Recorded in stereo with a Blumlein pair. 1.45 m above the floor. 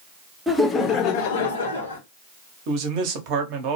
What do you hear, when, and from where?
0.5 s laughter: straight ahead, 0.7 m; by 2.0 s 80° left, 1.0 m
2.7 s a man speaking: 45° right, 0.7 m